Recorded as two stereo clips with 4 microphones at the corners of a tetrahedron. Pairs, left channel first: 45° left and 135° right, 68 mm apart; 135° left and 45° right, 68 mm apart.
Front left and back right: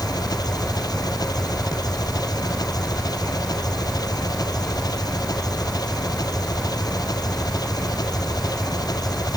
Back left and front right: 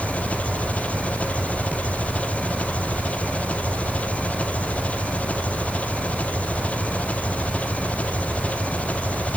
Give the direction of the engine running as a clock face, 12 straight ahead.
10 o'clock.